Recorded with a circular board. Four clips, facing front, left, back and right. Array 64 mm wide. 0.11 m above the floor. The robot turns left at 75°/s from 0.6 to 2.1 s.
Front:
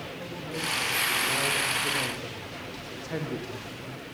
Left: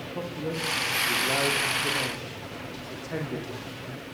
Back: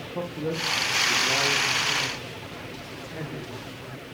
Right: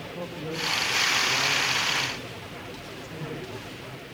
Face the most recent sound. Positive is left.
turn(degrees=45)